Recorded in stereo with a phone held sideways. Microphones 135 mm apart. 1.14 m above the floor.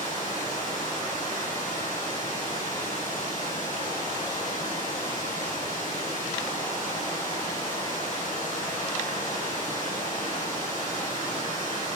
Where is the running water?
75° left (ahead or behind), 6.5 m.